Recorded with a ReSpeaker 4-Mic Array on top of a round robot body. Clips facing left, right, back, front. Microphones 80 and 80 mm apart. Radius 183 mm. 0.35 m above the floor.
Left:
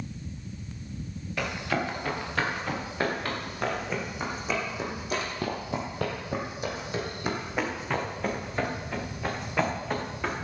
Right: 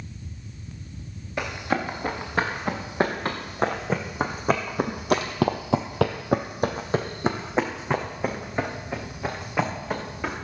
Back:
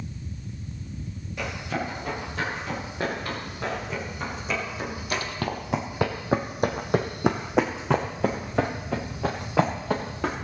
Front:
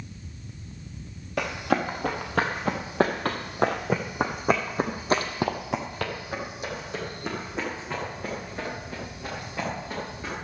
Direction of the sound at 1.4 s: 15° right.